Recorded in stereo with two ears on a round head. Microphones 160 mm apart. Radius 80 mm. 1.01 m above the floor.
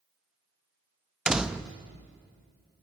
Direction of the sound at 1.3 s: 5° right (ahead or behind).